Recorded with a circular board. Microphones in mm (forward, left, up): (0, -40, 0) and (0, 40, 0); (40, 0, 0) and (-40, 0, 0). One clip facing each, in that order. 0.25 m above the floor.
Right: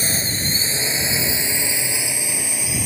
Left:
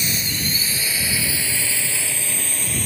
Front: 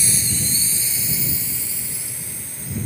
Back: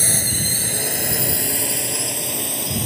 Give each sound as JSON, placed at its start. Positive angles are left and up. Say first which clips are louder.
{"t": 0.0, "sound": "a drone", "louder": "right 1 dB, back 2 dB", "azimuth_deg": -145}